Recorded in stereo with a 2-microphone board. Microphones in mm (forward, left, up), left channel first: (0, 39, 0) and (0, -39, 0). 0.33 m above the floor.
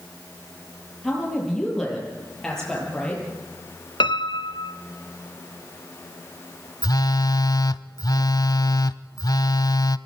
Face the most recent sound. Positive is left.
turn(degrees=55)  # may be behind; listen again after turning